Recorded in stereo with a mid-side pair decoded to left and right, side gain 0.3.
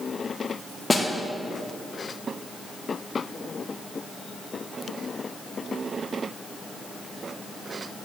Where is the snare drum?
25° left, 1.4 m.